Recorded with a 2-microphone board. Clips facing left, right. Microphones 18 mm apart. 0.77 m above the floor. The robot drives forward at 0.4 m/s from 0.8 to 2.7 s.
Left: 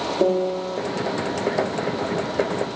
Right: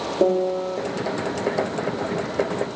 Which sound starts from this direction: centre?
A piano, at 0.2 s.